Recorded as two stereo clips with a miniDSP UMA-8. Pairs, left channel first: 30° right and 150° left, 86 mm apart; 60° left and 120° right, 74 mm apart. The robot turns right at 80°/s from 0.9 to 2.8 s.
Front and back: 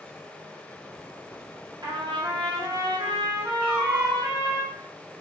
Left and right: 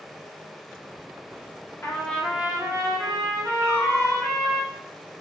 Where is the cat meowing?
125° left, 1.1 m.